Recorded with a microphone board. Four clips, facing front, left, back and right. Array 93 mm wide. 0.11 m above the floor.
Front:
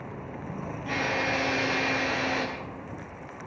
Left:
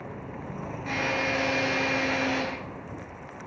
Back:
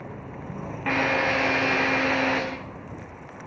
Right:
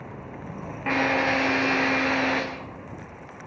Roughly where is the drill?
Behind right.